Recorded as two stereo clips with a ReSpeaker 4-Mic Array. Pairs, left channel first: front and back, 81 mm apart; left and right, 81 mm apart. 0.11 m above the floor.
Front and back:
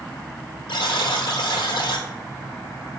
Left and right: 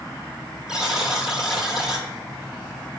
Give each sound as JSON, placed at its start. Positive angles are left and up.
{"t": 0.7, "sound": "a buzzer", "azimuth_deg": -5, "distance_m": 0.9}